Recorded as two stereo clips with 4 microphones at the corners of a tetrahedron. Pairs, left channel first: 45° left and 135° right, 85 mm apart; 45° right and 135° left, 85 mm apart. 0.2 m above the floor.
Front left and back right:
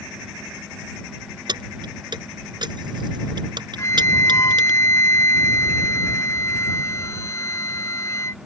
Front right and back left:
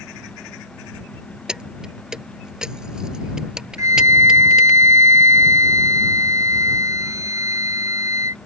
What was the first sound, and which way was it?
Keys jangling, 145° right.